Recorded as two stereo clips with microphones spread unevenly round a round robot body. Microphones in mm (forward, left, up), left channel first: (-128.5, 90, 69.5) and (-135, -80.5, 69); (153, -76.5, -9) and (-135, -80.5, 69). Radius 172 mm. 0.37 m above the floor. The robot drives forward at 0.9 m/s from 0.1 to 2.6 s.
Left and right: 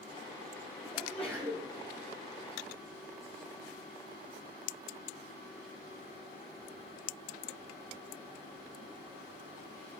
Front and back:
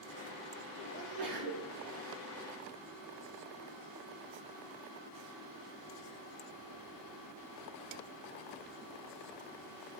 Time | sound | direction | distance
0.9 | a sneeze | 170° left | 2.5 m